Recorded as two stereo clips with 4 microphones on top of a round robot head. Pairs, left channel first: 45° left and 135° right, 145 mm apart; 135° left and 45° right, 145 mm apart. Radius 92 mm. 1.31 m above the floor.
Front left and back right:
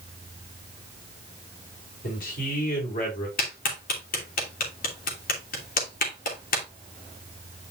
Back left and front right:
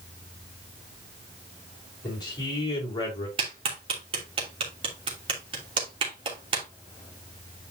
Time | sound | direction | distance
2.0 | a man speaking | 75° left | 4 m
3.4 | a clap | 15° left | 3 m